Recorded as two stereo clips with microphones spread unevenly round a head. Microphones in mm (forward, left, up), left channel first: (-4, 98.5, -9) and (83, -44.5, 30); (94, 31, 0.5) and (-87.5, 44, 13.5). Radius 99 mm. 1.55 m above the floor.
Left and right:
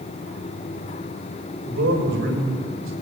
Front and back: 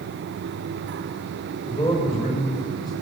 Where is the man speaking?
65° right, 8 m; by 2.9 s 75° right, 7 m.